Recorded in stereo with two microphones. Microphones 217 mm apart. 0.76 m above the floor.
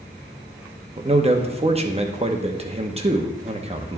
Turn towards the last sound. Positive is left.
turn(degrees=-30)  # may be behind; listen again after turning